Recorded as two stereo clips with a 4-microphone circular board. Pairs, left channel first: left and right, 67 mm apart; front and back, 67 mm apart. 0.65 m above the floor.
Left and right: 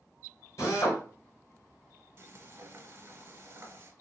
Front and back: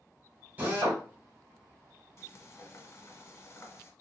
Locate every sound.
0.6 s a drill: 115° left, 2.5 m
2.2 s frying: 45° right, 0.9 m